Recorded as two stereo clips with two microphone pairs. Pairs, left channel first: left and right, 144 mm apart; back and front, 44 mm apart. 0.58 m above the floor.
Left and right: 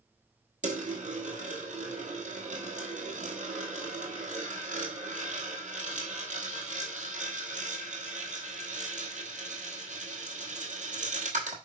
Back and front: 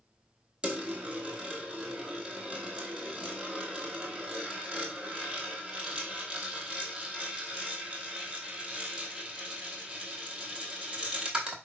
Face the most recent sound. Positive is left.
turn(degrees=-70)